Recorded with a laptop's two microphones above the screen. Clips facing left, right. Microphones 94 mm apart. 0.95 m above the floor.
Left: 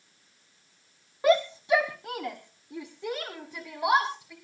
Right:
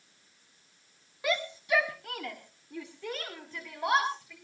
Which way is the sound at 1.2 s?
35° left (ahead or behind).